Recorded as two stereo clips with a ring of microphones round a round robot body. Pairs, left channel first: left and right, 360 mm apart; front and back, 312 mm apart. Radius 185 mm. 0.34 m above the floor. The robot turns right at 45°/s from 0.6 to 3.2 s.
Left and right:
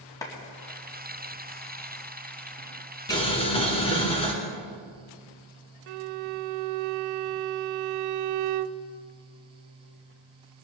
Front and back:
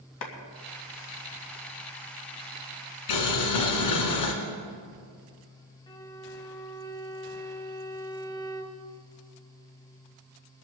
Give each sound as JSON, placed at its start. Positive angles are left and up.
{"t": 0.2, "sound": "a clap", "azimuth_deg": 10, "distance_m": 2.5}
{"t": 3.1, "sound": "boiling", "azimuth_deg": 10, "distance_m": 2.0}
{"t": 5.9, "sound": "a violin", "azimuth_deg": -75, "distance_m": 0.5}